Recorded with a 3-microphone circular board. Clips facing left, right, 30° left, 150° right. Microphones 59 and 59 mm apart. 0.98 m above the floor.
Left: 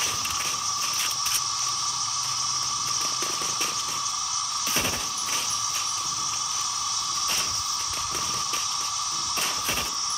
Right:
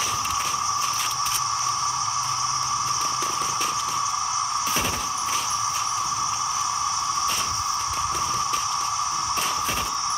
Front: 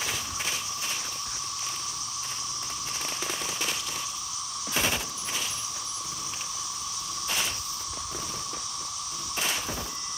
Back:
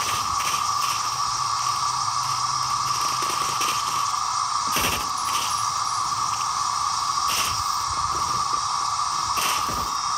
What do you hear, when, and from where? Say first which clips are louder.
0.0 s an insect: right 5 dB, back 10 dB; 150° right